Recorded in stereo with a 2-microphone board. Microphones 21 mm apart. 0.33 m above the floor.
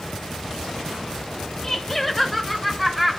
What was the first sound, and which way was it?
Laughter, 20° left (ahead or behind).